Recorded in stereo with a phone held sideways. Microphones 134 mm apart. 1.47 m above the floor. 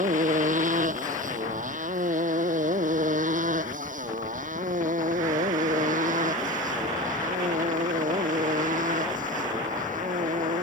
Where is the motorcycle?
75° right (ahead or behind).